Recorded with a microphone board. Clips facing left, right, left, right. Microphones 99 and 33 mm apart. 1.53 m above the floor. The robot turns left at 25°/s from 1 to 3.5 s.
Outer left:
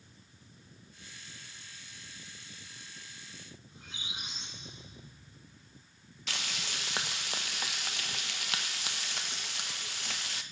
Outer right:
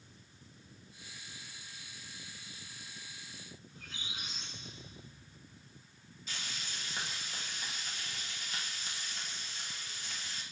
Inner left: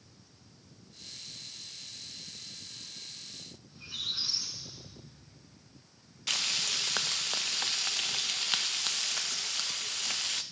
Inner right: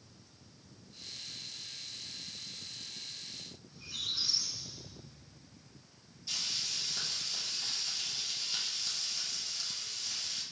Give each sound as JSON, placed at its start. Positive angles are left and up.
{"t": 3.7, "sound": "a squeak", "side_deg": 20, "distance_m": 1.8}
{"t": 6.3, "sound": "frying", "side_deg": 70, "distance_m": 0.5}